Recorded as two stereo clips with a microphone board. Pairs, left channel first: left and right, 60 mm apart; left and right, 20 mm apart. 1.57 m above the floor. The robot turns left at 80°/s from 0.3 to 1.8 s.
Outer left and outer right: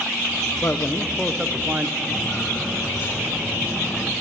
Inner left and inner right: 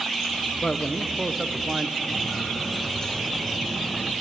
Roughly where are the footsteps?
Centre.